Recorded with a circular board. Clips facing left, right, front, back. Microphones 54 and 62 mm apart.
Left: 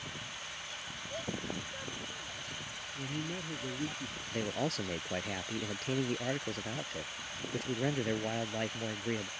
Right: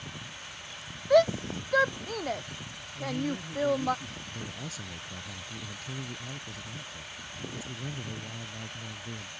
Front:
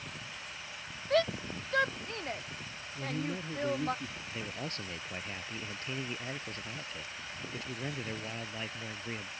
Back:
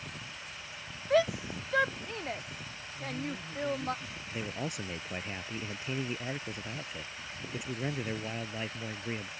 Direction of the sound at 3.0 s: 35° left.